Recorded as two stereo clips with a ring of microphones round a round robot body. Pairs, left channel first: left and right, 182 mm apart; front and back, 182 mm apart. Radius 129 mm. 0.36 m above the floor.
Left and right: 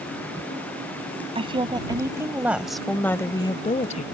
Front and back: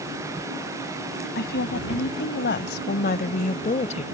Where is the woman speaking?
35° right; by 4.0 s 50° left.